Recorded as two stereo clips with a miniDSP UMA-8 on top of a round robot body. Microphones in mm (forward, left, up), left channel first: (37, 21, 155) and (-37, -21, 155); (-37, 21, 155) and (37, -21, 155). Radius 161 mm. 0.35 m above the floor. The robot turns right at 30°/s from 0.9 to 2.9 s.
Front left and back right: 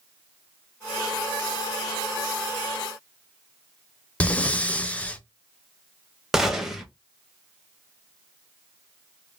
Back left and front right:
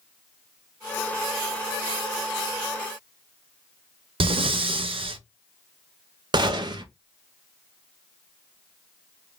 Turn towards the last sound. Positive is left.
turn(degrees=-65)